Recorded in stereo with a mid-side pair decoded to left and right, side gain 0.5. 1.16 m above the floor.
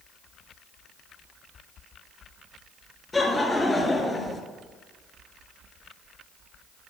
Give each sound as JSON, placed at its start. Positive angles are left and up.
{"t": 3.1, "sound": "laughter", "azimuth_deg": 15, "distance_m": 1.9}